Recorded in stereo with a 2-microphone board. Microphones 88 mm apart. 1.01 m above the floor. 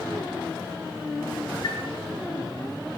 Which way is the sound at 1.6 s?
75° left (ahead or behind).